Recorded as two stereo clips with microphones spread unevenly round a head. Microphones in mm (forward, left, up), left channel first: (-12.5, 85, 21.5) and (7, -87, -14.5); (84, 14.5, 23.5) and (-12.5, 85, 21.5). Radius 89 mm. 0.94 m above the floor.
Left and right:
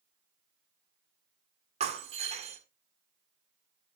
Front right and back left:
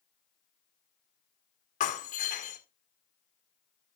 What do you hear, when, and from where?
1.8 s breaking glass: 25° right, 1.9 m